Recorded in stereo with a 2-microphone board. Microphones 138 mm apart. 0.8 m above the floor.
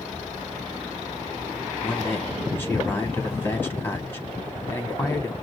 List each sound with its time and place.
1.8 s a man speaking: 15° left (ahead or behind), 2 m